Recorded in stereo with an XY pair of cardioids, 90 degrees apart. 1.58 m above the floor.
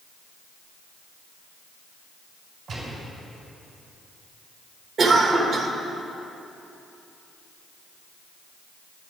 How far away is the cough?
About 1.9 m.